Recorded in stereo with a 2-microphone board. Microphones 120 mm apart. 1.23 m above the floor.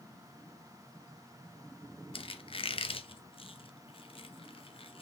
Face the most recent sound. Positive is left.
turn(degrees=50)  # may be behind; listen again after turning